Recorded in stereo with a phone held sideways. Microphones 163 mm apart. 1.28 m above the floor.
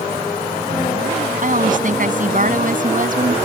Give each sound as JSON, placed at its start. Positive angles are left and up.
{"t": 1.4, "sound": "a woman speaking", "side_deg": -55}